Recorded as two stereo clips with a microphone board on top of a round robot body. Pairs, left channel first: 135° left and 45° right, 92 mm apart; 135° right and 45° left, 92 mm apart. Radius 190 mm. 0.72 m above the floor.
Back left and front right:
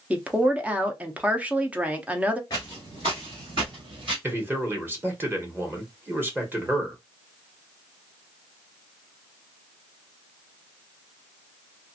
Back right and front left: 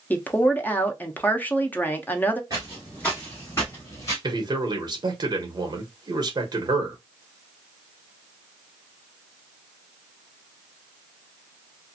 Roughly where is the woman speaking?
Right.